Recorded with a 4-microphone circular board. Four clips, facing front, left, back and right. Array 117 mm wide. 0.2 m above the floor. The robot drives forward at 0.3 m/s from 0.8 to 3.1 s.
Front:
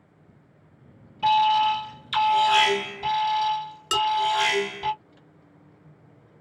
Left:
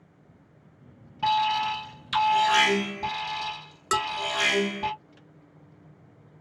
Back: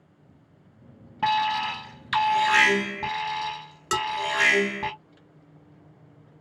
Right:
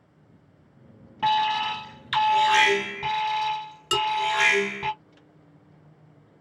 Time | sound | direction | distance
1.2 | an alarm | 160° right | 1.5 m
3.9 | dishes clattering | 125° left | 1.0 m